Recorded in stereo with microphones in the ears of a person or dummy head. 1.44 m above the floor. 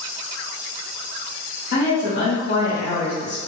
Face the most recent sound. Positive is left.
turn(degrees=85)